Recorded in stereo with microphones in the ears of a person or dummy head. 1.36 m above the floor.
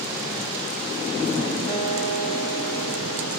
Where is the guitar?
35° left (ahead or behind), 3.5 m.